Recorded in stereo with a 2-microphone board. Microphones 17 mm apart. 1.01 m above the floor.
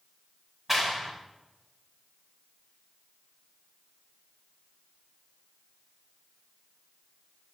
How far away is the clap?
About 4.5 m.